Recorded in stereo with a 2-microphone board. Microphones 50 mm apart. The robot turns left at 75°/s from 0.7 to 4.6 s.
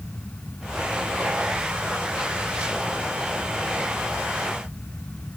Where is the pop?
No pop in this recording.